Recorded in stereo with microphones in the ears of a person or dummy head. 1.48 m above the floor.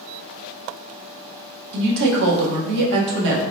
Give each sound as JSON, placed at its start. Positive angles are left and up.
{"t": 1.7, "sound": "a woman speaking", "side_deg": -55, "distance_m": 1.1}